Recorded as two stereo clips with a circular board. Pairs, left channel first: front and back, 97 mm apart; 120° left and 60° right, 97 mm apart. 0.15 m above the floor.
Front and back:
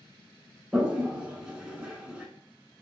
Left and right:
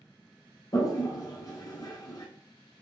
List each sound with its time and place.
0.7 s a toilet flushing: 100° left, 0.7 m